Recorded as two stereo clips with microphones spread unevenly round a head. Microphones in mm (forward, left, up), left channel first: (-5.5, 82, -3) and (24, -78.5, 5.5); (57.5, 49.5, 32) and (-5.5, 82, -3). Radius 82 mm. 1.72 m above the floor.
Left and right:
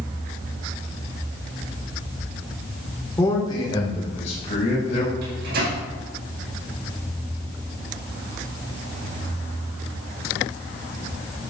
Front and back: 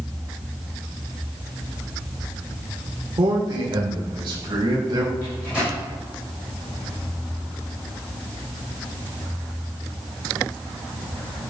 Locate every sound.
3.2 s a man speaking: 175° left, 2.5 m; by 5.1 s 145° left, 5 m
5.2 s a microwave: 115° right, 6 m